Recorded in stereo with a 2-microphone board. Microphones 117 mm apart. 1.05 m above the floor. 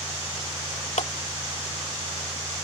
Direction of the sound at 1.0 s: 80° left.